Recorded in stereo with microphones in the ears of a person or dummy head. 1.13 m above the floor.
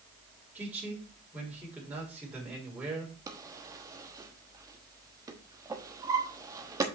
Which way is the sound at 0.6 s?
10° right (ahead or behind).